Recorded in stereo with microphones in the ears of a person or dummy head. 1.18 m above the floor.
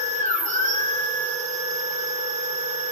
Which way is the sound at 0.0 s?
40° right (ahead or behind).